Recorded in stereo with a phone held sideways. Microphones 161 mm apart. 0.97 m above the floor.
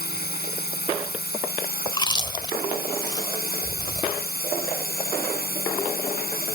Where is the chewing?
30° left (ahead or behind).